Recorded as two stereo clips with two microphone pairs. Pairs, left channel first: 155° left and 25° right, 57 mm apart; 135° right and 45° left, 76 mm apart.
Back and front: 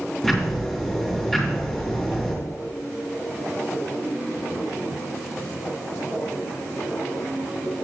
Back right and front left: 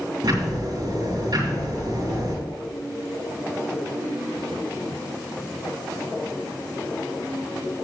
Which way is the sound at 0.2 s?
75° left.